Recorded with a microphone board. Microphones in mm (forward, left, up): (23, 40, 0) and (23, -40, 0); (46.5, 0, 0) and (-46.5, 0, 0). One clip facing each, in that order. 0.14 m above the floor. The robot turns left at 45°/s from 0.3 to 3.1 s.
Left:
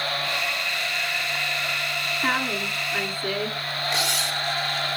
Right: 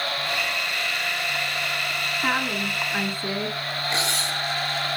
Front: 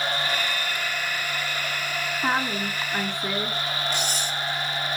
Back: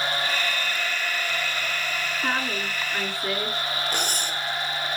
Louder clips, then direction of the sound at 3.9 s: Even, even; 145° right.